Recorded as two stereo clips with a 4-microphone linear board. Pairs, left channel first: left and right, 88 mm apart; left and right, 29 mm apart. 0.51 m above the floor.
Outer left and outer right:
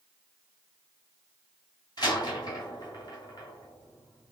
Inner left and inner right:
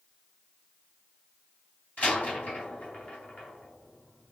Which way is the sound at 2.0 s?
50° left (ahead or behind).